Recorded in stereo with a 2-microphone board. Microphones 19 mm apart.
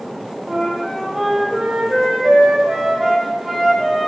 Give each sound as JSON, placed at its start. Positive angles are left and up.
{"t": 0.5, "sound": "a flute", "side_deg": -30, "distance_m": 1.1}